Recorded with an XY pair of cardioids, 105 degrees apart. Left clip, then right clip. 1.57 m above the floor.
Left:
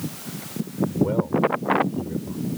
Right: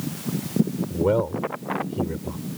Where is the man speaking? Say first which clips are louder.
Right 2 dB; 45° right.